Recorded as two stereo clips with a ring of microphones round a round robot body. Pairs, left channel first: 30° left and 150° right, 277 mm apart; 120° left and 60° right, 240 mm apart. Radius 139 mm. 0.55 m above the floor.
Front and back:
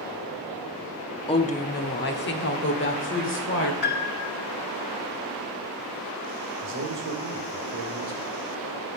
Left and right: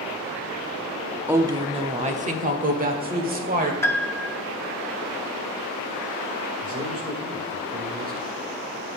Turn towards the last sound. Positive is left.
turn(degrees=-115)